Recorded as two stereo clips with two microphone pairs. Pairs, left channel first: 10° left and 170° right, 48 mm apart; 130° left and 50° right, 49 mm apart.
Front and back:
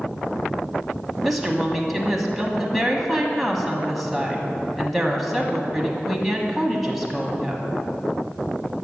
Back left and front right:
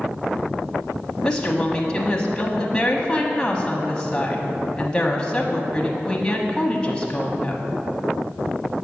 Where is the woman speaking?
105° left, 1.0 m.